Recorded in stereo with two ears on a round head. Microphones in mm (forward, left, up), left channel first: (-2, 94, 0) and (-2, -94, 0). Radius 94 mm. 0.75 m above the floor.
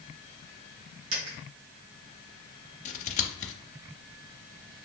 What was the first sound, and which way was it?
A dropped coin, 75° right (ahead or behind).